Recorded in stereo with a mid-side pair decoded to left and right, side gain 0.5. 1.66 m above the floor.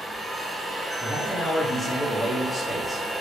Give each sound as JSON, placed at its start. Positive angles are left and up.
{"t": 0.0, "sound": "a machine running", "azimuth_deg": -20, "distance_m": 0.8}
{"t": 1.0, "sound": "a man speaking", "azimuth_deg": 10, "distance_m": 1.0}